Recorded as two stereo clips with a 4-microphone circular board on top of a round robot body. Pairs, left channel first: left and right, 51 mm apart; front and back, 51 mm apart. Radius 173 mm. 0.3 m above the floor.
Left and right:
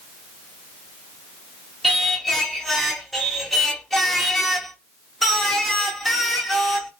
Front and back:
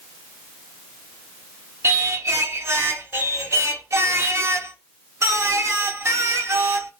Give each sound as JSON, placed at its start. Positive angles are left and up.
{"t": 1.8, "sound": "singing", "azimuth_deg": 175, "distance_m": 1.4}